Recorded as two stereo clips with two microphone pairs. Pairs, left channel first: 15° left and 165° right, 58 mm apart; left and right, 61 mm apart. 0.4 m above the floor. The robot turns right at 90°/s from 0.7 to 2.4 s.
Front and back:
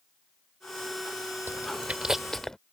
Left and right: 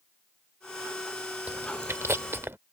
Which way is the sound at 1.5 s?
145° right.